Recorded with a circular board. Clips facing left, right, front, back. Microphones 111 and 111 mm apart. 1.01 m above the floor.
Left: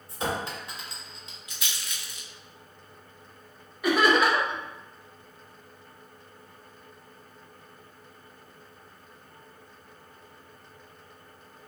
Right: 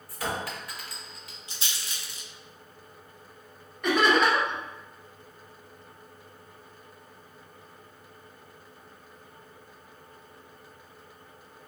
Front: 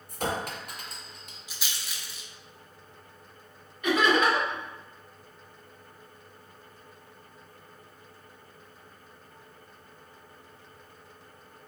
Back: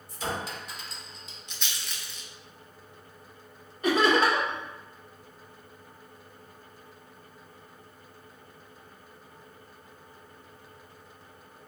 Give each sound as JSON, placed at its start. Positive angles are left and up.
{"t": 0.1, "sound": "a clink", "azimuth_deg": 25, "distance_m": 0.6}
{"t": 1.5, "sound": "a rattle", "azimuth_deg": -80, "distance_m": 0.5}
{"t": 3.8, "sound": "laughter", "azimuth_deg": 170, "distance_m": 1.0}